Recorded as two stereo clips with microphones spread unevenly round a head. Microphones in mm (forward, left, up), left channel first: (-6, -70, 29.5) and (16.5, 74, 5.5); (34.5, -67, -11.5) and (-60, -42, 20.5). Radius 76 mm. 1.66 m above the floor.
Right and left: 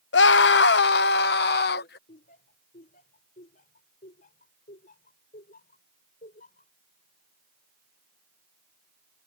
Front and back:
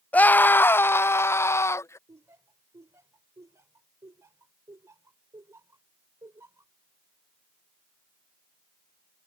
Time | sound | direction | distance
0.1 | a scream | 90° right | ?
2.1 | laughter | 135° right | ?